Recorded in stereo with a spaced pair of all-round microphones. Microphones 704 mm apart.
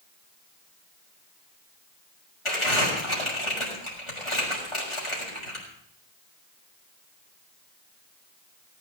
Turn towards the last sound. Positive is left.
turn(degrees=45)  # may be behind; listen again after turning